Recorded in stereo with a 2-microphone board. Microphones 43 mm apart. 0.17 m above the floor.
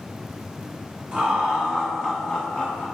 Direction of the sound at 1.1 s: 20° right (ahead or behind).